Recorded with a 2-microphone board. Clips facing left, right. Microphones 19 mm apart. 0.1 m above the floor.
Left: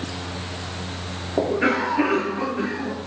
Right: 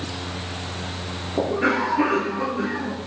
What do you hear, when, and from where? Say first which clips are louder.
1.4 s a cough: left 1 dB; 25° left (ahead or behind), 1.9 m